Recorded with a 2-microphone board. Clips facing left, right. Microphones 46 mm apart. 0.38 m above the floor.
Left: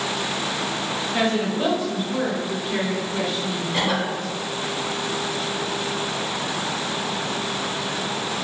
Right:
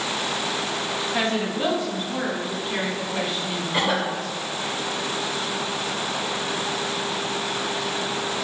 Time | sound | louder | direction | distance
1.1 | a woman speaking | left 3 dB | 20° left (ahead or behind) | 1.5 m
3.7 | a cough | right 1 dB | 15° right (ahead or behind) | 1.0 m